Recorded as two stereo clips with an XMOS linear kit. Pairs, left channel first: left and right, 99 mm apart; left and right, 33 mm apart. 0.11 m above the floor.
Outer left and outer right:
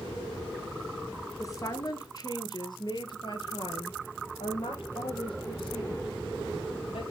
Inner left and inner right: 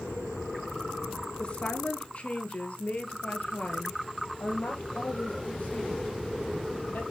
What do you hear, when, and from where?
1.4 s a woman speaking: 35° left (ahead or behind), 2 m; by 7.0 s 70° left (ahead or behind), 4.5 m